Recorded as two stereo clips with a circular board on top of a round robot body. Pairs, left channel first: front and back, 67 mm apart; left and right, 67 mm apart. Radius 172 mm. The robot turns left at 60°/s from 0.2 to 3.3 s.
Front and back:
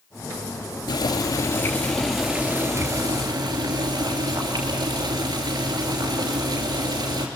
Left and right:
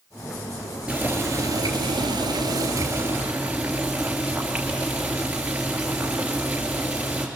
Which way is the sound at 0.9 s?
10° right.